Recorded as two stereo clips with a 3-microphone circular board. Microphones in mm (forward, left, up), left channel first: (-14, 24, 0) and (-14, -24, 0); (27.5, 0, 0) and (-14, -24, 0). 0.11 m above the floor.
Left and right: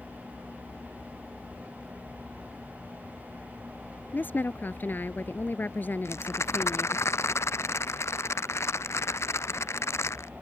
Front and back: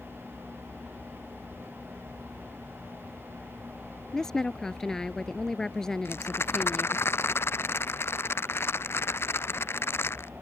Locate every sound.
4.1 s a woman speaking: 105° left
6.0 s a rattle: 65° left